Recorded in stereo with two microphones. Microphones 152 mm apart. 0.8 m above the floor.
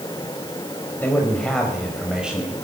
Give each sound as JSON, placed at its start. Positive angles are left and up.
{"t": 1.0, "sound": "a man speaking", "side_deg": 10, "distance_m": 3.5}